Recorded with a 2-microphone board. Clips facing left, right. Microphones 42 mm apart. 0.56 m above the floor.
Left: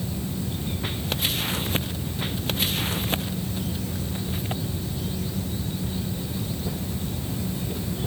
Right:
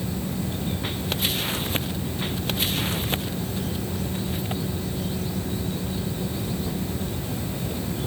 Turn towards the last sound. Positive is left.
No sound to turn to.